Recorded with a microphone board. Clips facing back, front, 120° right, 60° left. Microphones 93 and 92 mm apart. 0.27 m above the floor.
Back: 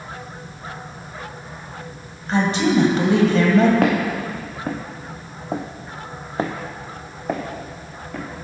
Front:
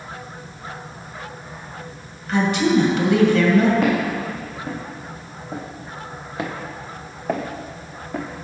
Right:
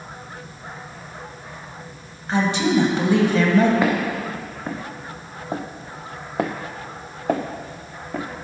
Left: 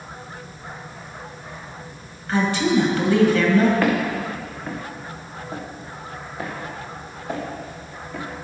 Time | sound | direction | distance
2.3 | a woman speaking | 170° right | 1.6 m
3.8 | footsteps | 165° left | 1.9 m